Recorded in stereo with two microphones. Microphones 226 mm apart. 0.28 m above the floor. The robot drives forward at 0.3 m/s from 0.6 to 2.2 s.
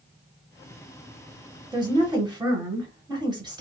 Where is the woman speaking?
20° right (ahead or behind), 1.0 m.